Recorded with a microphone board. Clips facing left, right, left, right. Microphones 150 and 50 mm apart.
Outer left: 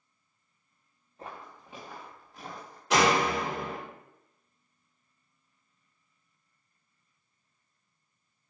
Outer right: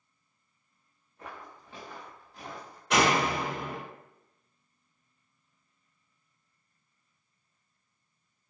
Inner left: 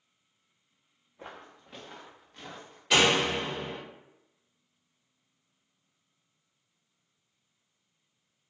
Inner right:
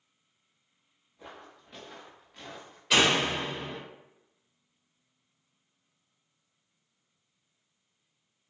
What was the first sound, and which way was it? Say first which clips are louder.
Footsteps: outer left 1 dB, inner left 2 dB; 30° left (ahead or behind).